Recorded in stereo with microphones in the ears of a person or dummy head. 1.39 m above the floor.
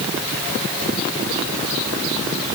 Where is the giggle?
I don't hear a giggle.